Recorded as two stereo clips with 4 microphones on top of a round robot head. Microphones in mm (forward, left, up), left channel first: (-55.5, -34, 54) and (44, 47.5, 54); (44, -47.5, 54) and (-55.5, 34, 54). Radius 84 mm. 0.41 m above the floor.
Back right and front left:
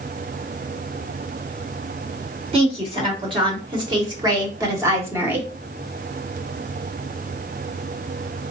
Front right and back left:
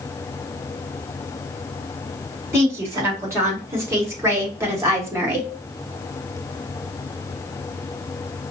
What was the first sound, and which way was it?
A woman speaking, 75° left.